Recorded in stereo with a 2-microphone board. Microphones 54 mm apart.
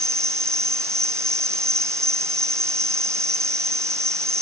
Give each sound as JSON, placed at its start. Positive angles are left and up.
{"t": 0.0, "sound": "an insect", "side_deg": -65}